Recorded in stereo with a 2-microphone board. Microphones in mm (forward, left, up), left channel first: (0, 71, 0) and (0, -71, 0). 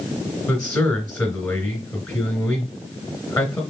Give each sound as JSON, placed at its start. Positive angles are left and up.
{"t": 0.5, "sound": "a man speaking", "side_deg": 15, "distance_m": 2.0}